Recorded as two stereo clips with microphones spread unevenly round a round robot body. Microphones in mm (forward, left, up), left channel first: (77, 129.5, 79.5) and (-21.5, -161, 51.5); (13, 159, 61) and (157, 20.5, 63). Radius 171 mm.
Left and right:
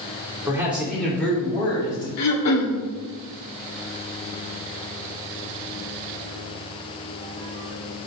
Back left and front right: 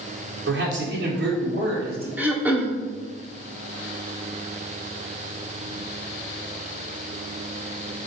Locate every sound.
0.5 s a man speaking: 30° right, 2.5 m; by 2.1 s 5° right, 4.5 m
2.2 s throat clearing: 40° left, 1.6 m